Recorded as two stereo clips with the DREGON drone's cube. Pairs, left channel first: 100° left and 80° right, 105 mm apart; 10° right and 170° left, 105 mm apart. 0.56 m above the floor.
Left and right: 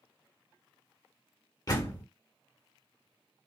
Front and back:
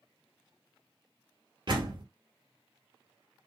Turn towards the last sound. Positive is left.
turn(degrees=140)